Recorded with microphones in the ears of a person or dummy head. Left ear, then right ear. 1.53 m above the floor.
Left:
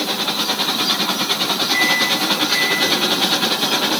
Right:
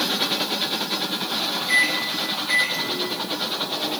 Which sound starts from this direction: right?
A microwave, at 1.7 s.